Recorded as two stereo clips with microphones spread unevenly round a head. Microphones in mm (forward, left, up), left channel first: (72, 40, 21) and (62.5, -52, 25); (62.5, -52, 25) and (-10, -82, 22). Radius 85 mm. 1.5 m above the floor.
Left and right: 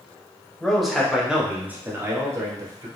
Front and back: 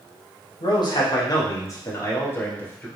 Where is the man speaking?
Straight ahead, 1.5 m; by 2.9 s 45° right, 1.6 m.